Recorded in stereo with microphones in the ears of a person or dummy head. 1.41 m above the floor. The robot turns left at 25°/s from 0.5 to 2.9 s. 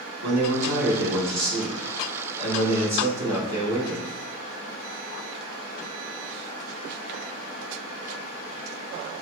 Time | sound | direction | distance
0.2 | a man speaking | 105° right | 1.7 m